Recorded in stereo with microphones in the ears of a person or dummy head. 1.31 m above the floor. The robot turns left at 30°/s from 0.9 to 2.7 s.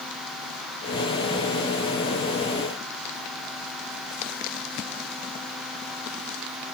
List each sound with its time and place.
Only background noise.